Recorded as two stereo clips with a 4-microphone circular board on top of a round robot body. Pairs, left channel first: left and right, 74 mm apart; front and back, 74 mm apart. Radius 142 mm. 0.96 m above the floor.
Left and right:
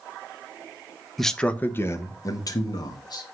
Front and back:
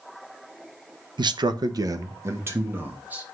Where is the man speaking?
Straight behind, 0.9 m; by 3.2 s 110° left, 1.8 m.